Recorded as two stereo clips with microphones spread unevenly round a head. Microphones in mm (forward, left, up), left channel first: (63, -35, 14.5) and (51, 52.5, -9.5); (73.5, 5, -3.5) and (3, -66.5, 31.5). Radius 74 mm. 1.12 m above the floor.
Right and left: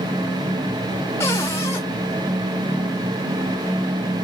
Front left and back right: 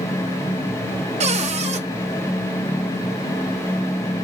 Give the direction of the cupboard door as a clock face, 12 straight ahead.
5 o'clock.